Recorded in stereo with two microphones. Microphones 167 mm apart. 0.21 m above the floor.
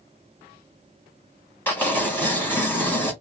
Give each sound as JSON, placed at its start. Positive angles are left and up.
{"t": 1.7, "sound": "tearing paper", "side_deg": 10, "distance_m": 1.7}